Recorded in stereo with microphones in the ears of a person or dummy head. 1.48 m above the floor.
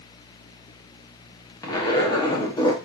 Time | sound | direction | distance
1.6 | a zipper | 25° left (ahead or behind) | 0.8 m